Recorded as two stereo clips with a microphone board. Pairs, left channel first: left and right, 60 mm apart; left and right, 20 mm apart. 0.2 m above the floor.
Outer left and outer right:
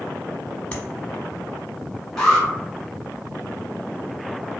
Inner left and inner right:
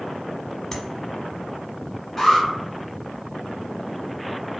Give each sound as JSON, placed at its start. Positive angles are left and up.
{"t": 0.7, "sound": "tapping", "side_deg": 20, "distance_m": 0.8}
{"t": 2.2, "sound": "an alarm", "side_deg": 15, "distance_m": 1.3}